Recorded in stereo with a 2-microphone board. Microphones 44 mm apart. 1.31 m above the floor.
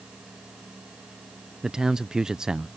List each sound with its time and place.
1.6 s a man speaking: 15° right (ahead or behind)